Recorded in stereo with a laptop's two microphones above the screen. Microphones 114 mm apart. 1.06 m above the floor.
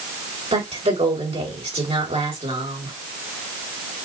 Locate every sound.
0.5 s a woman speaking: 65° right (ahead or behind), 3.5 m